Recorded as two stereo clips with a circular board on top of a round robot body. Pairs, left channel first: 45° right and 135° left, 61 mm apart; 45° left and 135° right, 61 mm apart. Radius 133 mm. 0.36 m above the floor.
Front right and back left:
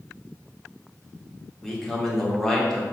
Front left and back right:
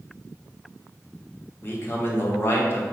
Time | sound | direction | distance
1.6 | a man speaking | 35° left | 1.5 m